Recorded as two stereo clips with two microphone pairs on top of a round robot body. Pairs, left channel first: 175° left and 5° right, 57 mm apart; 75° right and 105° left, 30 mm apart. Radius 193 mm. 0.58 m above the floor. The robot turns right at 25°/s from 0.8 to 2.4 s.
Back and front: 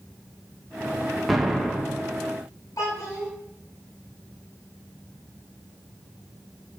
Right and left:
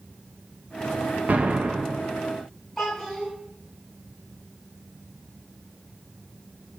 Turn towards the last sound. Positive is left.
turn(degrees=-160)